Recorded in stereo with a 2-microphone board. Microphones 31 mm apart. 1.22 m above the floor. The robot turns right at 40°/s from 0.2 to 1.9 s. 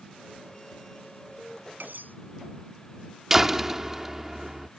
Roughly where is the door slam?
Centre.